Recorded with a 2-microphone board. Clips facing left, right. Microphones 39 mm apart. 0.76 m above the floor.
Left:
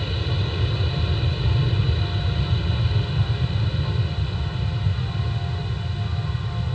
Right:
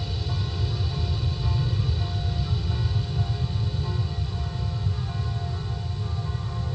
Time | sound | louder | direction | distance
0.0 | an aircraft | left 4 dB | 45° left (ahead or behind) | ?